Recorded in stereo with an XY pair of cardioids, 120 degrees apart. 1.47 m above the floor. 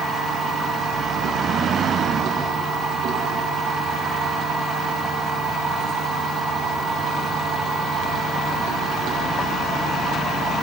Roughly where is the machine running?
Ahead right.